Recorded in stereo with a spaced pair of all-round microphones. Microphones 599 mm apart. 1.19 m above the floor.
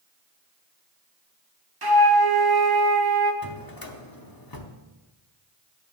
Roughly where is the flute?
Right.